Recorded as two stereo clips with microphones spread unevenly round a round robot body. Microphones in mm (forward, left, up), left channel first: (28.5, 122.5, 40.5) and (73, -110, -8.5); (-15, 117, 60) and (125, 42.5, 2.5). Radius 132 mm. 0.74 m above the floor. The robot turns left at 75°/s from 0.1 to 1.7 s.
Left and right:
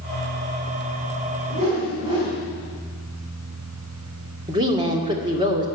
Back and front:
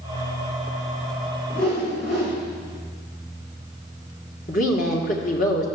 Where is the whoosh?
140° right, 4.5 m; by 2.4 s 155° right, 4.5 m.